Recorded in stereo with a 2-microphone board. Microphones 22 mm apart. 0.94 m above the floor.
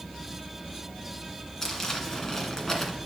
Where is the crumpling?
20° left (ahead or behind), 1.9 m.